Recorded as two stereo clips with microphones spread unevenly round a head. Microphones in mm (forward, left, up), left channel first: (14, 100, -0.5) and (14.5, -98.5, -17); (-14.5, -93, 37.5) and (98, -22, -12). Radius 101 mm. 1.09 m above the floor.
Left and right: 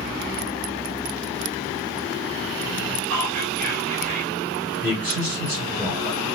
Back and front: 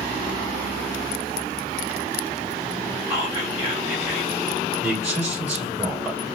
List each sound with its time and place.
3.1 s whispering: 40° right, 2.5 m
4.8 s a man speaking: 50° right, 3 m